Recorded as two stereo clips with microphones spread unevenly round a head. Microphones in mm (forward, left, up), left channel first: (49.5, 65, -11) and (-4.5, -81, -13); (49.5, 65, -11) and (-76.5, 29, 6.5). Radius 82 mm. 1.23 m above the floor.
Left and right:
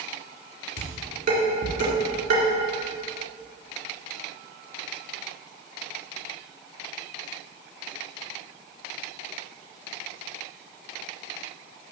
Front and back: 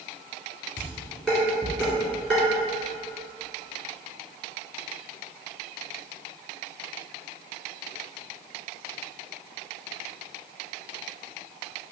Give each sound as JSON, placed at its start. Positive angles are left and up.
{"t": 0.8, "sound": "dishes clattering", "azimuth_deg": -70, "distance_m": 2.0}